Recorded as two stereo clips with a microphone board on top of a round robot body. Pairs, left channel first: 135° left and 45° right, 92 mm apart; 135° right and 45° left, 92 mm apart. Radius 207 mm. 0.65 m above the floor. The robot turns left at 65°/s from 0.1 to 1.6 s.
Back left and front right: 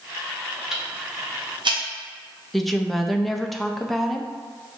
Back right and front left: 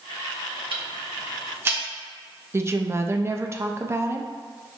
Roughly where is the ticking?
Ahead left.